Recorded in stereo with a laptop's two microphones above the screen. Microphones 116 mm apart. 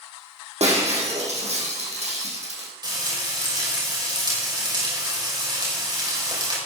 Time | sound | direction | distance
0.6 | breaking glass | 70° right (ahead or behind) | 5.5 m
2.8 | frying | 40° right (ahead or behind) | 5.5 m